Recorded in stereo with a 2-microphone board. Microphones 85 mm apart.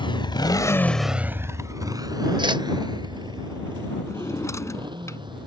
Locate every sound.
0.0 s a motorcycle: 75° left (ahead or behind); by 5.5 s 65° right (ahead or behind)
2.4 s a whoosh: 65° right (ahead or behind)
4.1 s a drawer: 35° left (ahead or behind)